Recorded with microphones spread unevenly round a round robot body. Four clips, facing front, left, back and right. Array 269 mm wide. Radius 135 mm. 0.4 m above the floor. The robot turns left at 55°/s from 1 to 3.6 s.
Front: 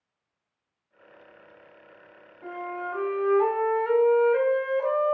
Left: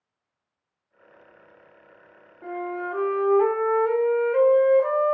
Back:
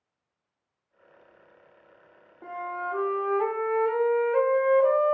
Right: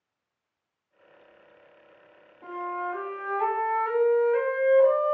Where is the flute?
145° left, 1.0 m; by 5.2 s 80° left, 1.0 m.